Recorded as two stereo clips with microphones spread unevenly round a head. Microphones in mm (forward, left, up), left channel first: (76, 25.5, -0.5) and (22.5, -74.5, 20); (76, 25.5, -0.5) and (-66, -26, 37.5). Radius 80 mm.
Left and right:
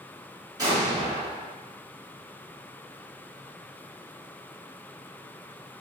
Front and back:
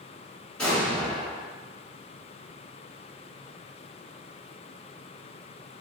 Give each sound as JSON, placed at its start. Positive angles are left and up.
{"t": 0.6, "sound": "an explosion", "azimuth_deg": -70, "distance_m": 1.6}